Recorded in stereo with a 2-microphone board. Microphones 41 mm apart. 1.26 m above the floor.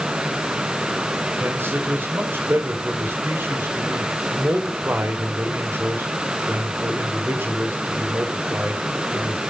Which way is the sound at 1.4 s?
65° right (ahead or behind).